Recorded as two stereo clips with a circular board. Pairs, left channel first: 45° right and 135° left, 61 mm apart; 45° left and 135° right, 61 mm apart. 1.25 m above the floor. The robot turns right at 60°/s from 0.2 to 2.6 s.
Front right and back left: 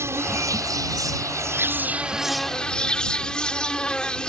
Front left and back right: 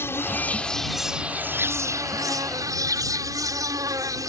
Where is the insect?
95° left; by 4.3 s 120° right.